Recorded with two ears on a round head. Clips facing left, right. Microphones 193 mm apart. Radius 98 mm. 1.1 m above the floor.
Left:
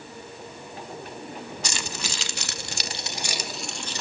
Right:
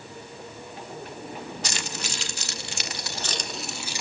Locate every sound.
1.6 s keys jangling: 75° left (ahead or behind), 1.3 m; by 4.0 s 10° right (ahead or behind), 1.4 m